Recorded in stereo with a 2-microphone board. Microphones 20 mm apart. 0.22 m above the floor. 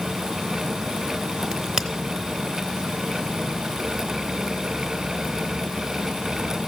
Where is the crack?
30° right (ahead or behind), 0.8 m.